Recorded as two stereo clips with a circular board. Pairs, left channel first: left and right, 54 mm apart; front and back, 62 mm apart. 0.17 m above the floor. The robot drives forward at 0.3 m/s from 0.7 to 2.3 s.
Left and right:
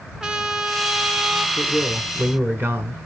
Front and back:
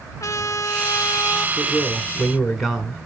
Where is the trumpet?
10° right, 0.8 m; by 1.5 s 20° right, 0.6 m.